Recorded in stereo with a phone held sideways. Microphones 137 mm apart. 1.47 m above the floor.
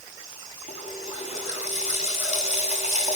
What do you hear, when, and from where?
0.7 s a running tap: 50° left (ahead or behind), 7 m